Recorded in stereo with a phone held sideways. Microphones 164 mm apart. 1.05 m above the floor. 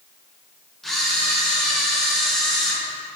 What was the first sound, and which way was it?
A camera shutter, centre (ahead or behind).